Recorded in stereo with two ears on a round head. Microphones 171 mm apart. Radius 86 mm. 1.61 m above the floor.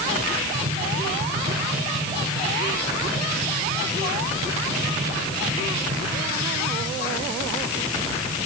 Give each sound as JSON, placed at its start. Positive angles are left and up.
{"t": 0.5, "sound": "tapping", "side_deg": -35, "distance_m": 8.0}